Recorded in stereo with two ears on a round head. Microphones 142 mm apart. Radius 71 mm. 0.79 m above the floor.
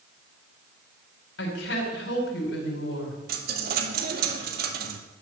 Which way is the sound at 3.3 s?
60° right (ahead or behind).